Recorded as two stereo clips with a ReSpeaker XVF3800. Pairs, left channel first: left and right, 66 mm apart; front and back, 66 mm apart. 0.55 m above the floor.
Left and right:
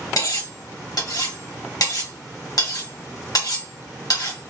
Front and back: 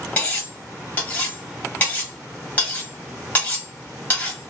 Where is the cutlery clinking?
65° left, 1.7 m.